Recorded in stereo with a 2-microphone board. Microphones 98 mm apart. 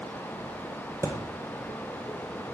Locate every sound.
1.0 s a thud: 30° right (ahead or behind), 1.1 m